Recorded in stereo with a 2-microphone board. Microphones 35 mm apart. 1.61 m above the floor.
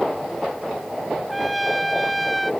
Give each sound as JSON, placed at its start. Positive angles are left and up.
{"t": 1.3, "sound": "a trumpet", "side_deg": 5}